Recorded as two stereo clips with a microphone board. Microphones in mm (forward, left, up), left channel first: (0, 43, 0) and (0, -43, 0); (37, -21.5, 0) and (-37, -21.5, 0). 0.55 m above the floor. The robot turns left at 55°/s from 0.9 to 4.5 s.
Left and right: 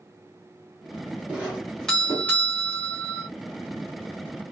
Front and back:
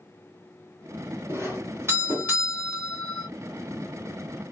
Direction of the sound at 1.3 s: 155° right.